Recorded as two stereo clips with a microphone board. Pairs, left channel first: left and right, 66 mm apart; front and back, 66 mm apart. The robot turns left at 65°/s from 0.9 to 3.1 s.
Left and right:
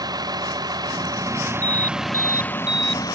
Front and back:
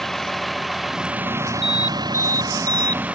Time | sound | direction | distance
0.0 | a vehicle | 85° right | ?
1.6 | an alarm | 95° right | ?